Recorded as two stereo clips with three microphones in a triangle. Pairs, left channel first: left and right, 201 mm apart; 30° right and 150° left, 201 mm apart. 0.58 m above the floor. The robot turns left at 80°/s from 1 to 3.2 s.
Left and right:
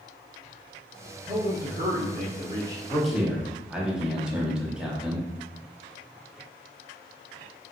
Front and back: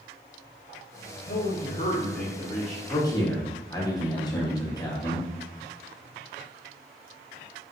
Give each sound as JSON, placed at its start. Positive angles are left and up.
{"t": 1.2, "sound": "a man speaking", "azimuth_deg": -40, "distance_m": 0.9}
{"t": 2.9, "sound": "a man speaking", "azimuth_deg": 10, "distance_m": 0.7}